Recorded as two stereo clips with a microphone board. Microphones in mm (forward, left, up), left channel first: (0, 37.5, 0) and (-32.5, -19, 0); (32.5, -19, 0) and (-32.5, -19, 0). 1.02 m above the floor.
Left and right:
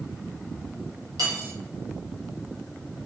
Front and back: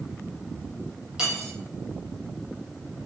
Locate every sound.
1.2 s cutlery clinking: 100° right, 1.5 m